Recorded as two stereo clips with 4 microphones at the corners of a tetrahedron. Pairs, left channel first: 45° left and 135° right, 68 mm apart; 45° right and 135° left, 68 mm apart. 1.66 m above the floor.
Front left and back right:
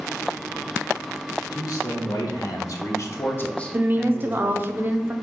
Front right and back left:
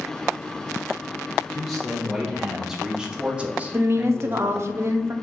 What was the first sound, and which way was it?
A man speaking, 45° left.